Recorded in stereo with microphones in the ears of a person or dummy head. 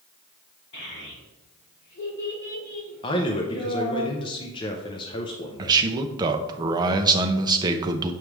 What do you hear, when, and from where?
0.7 s a child speaking: 60° left (ahead or behind), 3 m
3.0 s a man speaking: 25° left (ahead or behind), 0.6 m
5.6 s a man speaking: 20° right (ahead or behind), 0.6 m